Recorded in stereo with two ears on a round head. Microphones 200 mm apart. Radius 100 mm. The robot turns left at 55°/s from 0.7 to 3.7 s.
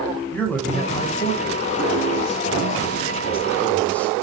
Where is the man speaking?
170° left, 4.5 m; by 4.1 s 5° left, 4.5 m.